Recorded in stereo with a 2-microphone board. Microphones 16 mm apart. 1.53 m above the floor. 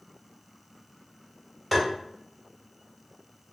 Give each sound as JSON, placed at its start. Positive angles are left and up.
{"t": 1.7, "sound": "tapping", "side_deg": 10, "distance_m": 1.4}